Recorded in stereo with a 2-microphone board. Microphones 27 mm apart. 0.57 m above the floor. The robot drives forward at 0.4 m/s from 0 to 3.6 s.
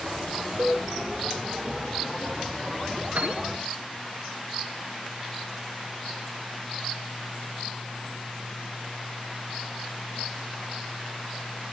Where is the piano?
70° right (ahead or behind), 3 m.